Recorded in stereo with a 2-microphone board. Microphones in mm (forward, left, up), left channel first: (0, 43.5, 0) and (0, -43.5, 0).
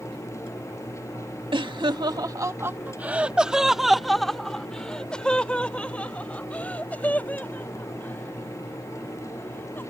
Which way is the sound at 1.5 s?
75° right (ahead or behind).